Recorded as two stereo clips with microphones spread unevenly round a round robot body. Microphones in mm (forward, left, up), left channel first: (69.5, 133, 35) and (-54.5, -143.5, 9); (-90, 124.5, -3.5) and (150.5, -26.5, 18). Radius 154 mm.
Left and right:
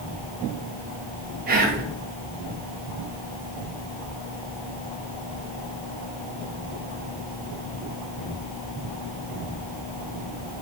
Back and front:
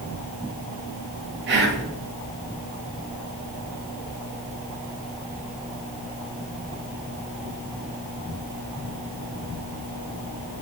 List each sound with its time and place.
1.5 s whispering: 75° right, 0.6 m